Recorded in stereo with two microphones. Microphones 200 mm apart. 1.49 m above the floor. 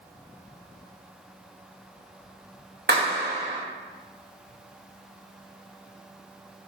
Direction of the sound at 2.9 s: 55° right (ahead or behind).